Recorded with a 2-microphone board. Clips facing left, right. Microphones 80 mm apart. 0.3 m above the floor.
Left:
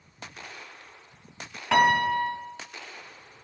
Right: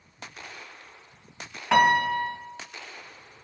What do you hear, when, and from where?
1.7 s a piano: 10° right (ahead or behind), 1.9 m